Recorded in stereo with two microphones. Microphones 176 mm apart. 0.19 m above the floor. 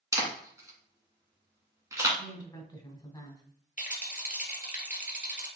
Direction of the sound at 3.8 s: 50° left (ahead or behind).